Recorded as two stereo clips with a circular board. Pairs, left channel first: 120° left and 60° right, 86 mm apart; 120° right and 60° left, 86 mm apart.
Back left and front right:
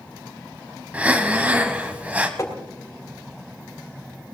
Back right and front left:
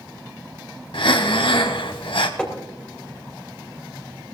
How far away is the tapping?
About 3 m.